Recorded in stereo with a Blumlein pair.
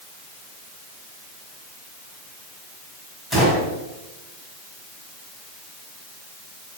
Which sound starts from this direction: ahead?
A gunshot, at 3.3 s.